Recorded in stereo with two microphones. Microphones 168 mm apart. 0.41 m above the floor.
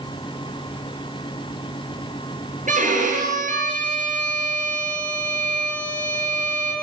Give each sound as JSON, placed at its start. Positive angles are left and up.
{"t": 2.7, "sound": "a violin", "side_deg": -50, "distance_m": 6.5}